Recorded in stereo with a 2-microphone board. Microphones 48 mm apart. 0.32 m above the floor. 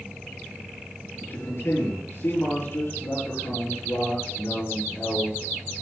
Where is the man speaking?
50° left (ahead or behind), 6 m.